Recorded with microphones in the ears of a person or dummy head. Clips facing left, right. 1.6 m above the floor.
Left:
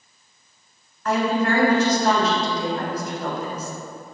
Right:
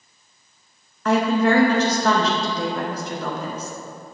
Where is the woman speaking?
60° right (ahead or behind), 0.7 m.